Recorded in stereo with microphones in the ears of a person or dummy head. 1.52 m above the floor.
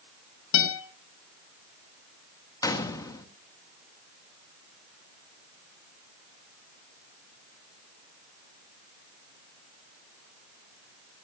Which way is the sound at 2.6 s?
10° left (ahead or behind).